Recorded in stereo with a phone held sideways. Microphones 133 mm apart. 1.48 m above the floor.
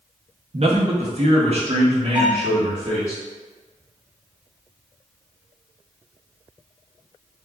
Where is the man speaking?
50° right (ahead or behind), 0.6 m.